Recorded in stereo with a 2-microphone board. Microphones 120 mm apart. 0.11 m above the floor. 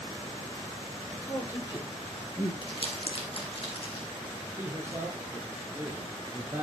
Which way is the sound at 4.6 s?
20° right (ahead or behind).